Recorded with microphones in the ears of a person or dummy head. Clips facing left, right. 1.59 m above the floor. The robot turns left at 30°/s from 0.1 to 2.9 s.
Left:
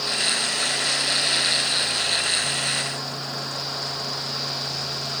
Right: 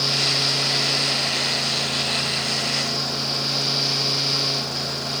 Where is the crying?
I don't hear crying.